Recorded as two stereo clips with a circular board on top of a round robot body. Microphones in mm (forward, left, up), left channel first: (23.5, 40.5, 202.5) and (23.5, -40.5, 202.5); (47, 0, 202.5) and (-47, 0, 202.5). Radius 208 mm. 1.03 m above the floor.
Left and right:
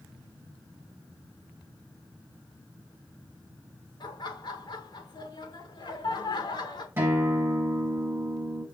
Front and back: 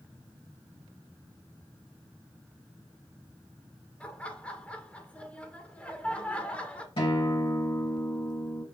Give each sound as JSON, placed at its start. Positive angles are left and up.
{"t": 4.0, "sound": "laughter", "azimuth_deg": 75, "distance_m": 2.0}
{"t": 7.0, "sound": "a guitar", "azimuth_deg": -30, "distance_m": 2.5}